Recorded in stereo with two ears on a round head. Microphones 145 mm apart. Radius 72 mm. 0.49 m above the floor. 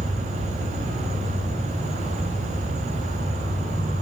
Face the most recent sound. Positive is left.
turn(degrees=-55)  # may be behind; listen again after turning